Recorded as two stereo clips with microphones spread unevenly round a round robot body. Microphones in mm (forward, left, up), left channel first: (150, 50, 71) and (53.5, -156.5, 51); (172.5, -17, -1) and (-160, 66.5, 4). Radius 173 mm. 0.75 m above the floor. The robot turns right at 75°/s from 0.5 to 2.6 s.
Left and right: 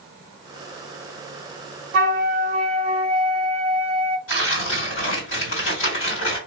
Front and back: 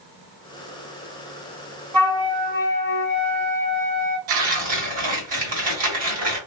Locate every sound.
1.9 s a flute: 100° right, 0.8 m; by 4.2 s 50° right, 0.8 m
4.3 s tearing paper: 100° left, 2.5 m